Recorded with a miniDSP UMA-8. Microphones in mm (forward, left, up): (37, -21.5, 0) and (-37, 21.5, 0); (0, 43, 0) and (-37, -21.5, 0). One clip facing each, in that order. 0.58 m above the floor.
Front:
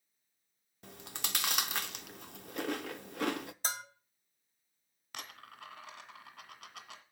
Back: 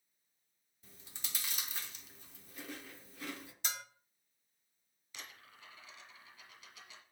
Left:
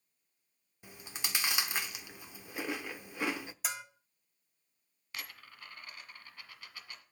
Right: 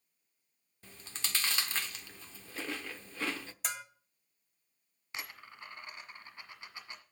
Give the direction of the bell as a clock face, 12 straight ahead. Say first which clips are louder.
Front 3 dB, right 1 dB; 1 o'clock.